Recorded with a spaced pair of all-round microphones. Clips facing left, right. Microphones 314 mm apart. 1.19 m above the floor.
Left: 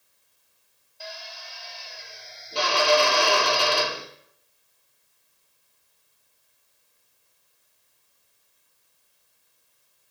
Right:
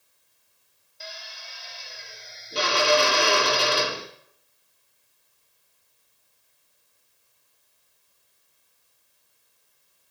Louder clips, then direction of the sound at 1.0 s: Left 3 dB; 25° right (ahead or behind).